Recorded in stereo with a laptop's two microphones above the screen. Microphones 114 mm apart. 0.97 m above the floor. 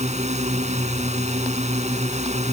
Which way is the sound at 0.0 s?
80° right.